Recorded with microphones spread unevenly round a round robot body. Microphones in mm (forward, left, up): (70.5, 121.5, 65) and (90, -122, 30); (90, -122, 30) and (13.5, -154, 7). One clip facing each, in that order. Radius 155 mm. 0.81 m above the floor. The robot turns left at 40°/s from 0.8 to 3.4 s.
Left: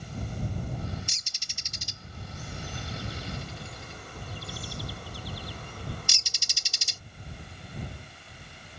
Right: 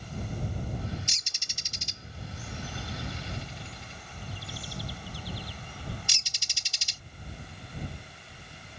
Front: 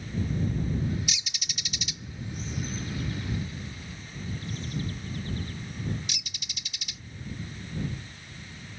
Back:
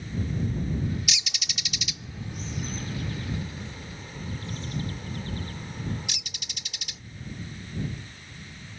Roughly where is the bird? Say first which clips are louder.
Right 1 dB, back 3 dB; behind right.